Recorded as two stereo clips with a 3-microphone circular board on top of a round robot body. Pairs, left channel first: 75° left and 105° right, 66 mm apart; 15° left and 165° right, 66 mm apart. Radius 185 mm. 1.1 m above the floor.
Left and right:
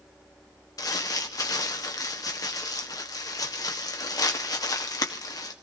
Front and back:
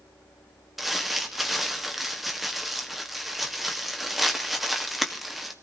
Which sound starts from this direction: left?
Crumpling, at 0.8 s.